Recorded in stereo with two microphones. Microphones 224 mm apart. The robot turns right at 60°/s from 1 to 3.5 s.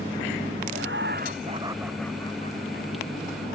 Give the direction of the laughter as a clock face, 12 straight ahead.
2 o'clock.